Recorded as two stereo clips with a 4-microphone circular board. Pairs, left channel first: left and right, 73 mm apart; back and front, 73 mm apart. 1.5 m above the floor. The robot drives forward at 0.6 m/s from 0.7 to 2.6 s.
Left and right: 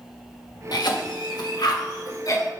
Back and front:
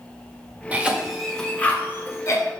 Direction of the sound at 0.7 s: 70° left.